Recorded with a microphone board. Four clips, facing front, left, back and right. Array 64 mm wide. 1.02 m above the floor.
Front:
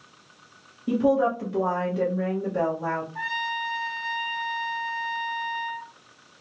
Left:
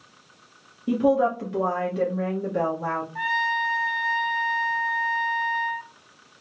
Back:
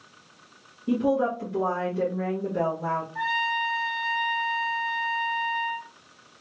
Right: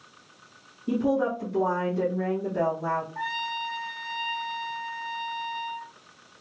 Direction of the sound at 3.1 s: 90° left.